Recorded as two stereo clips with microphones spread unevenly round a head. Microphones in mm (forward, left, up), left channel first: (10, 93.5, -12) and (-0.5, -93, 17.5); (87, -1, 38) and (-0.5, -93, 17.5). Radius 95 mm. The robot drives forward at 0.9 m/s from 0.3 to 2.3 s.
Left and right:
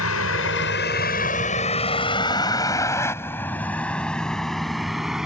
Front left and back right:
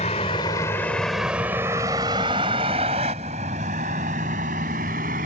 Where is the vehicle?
105° left; by 5.3 s straight behind.